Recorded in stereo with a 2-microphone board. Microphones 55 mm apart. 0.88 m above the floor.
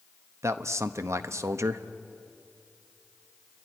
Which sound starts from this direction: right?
A man speaking, at 0.4 s.